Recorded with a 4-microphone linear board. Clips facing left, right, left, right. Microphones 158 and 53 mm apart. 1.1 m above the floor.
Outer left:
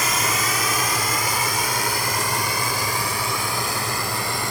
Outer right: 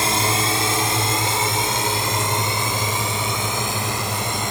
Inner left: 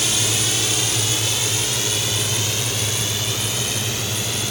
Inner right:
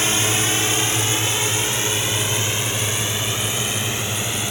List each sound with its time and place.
0.0 s a drone: 30° right (ahead or behind); by 4.5 s 20° right (ahead or behind)